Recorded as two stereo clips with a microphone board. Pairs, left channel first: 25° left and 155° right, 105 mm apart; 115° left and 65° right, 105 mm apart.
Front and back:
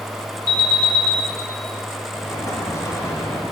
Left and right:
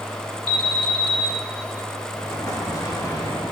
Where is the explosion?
70° left, 1.7 m.